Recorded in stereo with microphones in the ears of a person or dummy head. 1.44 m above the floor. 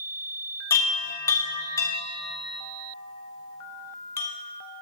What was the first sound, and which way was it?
A chime, 20° left (ahead or behind).